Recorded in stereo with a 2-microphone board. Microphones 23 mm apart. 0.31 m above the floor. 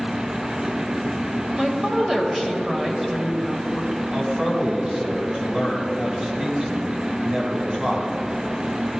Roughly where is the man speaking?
Right.